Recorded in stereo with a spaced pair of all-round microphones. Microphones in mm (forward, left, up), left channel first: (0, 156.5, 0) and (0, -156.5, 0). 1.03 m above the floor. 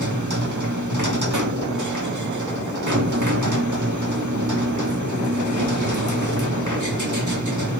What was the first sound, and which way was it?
A machine running, 70° right (ahead or behind).